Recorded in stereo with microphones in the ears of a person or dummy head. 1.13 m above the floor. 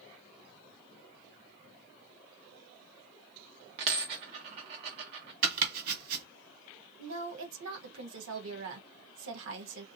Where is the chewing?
I don't hear chewing.